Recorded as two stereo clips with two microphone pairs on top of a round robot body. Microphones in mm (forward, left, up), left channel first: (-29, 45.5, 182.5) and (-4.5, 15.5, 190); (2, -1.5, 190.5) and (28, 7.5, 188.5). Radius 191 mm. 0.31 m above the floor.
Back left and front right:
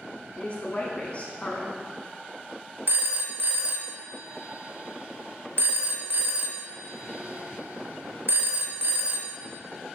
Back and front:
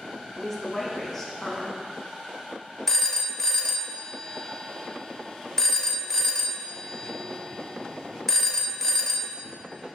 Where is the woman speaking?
120° left, 1.1 m.